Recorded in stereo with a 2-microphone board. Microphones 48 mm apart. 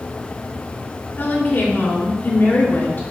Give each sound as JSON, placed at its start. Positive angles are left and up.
{"t": 1.2, "sound": "a woman speaking", "side_deg": 50, "distance_m": 2.5}